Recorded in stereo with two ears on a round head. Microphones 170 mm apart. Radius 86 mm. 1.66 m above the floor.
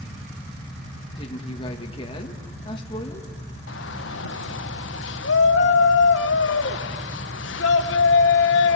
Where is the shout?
65° left (ahead or behind), 1.7 m.